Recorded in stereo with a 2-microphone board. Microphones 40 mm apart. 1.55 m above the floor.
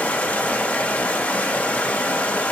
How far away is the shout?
No shout in this recording.